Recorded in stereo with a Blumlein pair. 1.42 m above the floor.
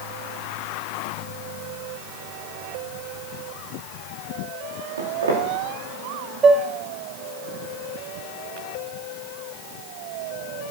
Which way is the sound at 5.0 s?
70° right.